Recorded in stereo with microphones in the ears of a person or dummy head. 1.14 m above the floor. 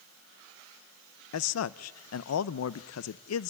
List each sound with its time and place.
1.3 s a man speaking: 75° left (ahead or behind), 0.6 m